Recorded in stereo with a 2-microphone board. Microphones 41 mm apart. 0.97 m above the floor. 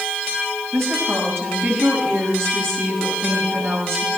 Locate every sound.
0.7 s a woman speaking: 60° right (ahead or behind), 6.5 m